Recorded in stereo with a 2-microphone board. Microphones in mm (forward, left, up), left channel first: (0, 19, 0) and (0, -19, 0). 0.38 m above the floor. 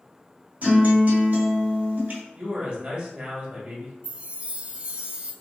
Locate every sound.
0.6 s a guitar: 45° right (ahead or behind), 1.4 m
2.4 s a man speaking: 40° right (ahead or behind), 2.0 m
4.0 s a chime: 35° right (ahead or behind), 0.5 m